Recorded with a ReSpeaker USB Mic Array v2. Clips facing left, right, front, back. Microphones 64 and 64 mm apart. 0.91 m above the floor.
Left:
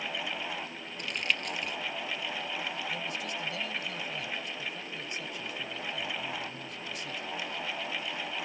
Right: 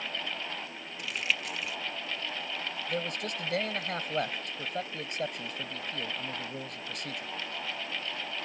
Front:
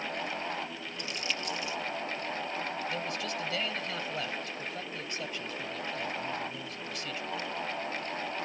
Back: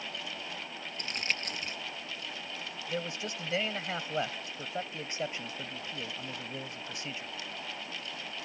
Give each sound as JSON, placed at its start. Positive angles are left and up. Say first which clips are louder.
{"t": 1.0, "sound": "crumpling", "louder": "even, back 1 dB", "azimuth_deg": -175}
{"t": 2.9, "sound": "a man speaking", "louder": "right 2 dB, front 2 dB", "azimuth_deg": -115}